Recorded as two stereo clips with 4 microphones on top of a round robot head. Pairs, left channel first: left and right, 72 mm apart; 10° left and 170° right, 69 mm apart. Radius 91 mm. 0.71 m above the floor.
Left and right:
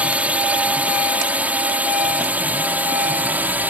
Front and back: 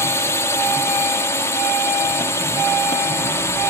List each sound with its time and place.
0.0 s a drone: 25° right; by 3.7 s 30° right